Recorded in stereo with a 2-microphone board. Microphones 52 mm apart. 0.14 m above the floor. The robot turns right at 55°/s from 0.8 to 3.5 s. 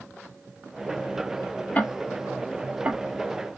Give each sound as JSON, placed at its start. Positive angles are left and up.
{"t": 1.8, "sound": "ticking", "side_deg": 30, "distance_m": 1.4}